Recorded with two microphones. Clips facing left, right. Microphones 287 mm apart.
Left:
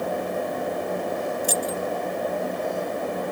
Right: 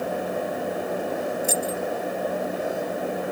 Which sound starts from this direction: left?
Keys jangling, at 1.4 s.